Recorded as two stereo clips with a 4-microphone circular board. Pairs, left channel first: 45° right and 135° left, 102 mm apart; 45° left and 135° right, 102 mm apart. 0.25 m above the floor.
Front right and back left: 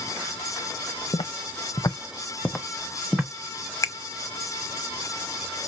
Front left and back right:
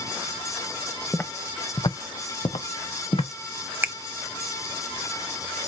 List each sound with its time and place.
1.1 s footsteps: 25° right, 0.8 m; by 3.3 s 55° left, 1.3 m
3.8 s a finger snap: 80° right, 0.9 m